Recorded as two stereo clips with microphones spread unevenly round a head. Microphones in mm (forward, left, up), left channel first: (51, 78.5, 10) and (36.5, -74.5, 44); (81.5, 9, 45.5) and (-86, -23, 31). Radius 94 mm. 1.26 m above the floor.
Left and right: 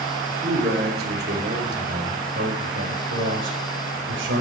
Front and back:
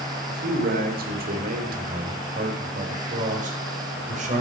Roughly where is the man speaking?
Behind right.